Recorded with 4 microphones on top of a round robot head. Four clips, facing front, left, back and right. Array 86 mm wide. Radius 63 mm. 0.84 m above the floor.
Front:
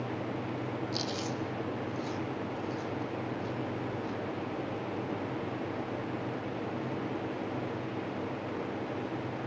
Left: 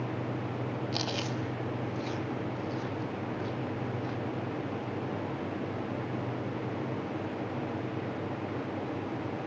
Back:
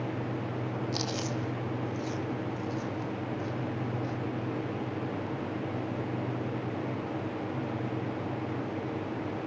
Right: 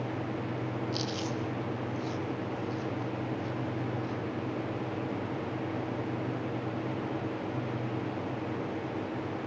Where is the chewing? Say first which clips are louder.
Even, back 2 dB; 115° left, 2.0 m.